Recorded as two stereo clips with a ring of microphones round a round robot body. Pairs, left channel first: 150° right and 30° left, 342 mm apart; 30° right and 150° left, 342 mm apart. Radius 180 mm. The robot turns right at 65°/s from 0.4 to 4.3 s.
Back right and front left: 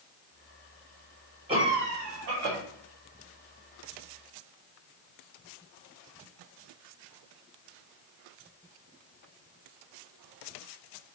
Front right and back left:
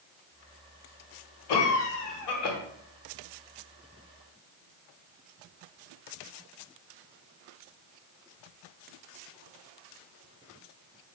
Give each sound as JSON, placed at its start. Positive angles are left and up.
{"t": 1.5, "sound": "a cough", "azimuth_deg": -45, "distance_m": 0.8}